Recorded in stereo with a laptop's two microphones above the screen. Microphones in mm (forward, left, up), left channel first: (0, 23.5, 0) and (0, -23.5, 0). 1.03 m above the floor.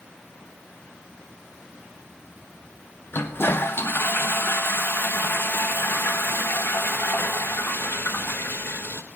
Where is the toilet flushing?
55° left (ahead or behind), 1.2 m.